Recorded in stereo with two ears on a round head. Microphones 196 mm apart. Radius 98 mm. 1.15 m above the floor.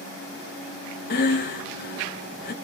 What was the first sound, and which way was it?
Breathing, 45° left (ahead or behind).